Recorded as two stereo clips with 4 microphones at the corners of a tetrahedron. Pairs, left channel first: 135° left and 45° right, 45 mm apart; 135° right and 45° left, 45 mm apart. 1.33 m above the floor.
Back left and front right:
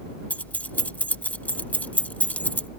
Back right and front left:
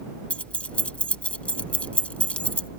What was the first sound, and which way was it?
Keys jangling, 175° left.